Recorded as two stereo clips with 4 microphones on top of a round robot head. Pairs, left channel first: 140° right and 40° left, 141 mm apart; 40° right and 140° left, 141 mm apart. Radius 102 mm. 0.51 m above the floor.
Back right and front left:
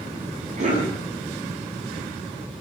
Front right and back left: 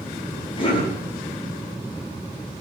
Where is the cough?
10° left, 5 m.